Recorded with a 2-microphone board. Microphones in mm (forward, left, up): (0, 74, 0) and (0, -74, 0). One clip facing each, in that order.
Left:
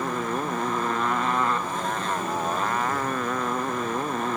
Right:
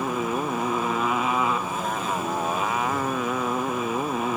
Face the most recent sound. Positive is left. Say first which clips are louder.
# right 2 dB
turn(degrees=-5)  # may be behind; listen again after turning